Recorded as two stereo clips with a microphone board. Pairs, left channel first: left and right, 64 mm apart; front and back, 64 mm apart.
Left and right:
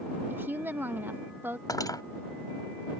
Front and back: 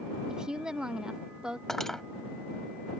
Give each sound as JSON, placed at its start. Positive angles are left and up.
{"t": 0.3, "sound": "a woman speaking", "azimuth_deg": -110}
{"t": 1.7, "sound": "cutlery clinking", "azimuth_deg": 85}